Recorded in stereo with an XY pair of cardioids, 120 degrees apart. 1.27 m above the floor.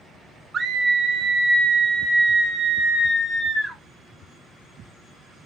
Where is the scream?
35° right, 0.8 m; by 3.8 s 5° right, 2.5 m.